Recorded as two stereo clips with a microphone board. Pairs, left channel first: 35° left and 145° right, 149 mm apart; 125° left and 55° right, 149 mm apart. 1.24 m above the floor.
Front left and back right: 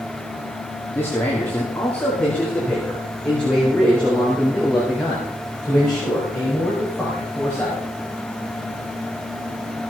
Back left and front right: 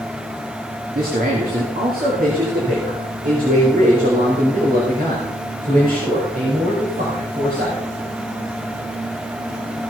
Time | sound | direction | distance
0.9 | a man speaking | 40° right | 2.5 m